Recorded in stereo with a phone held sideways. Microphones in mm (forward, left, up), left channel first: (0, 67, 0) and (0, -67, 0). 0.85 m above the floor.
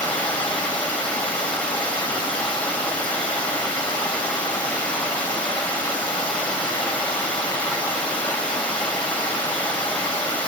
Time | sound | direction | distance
0.0 | running water | 10° left (ahead or behind) | 3.5 m